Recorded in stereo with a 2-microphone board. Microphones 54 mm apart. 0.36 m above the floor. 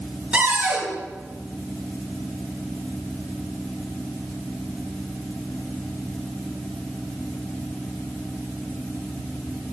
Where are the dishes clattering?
I don't hear dishes clattering.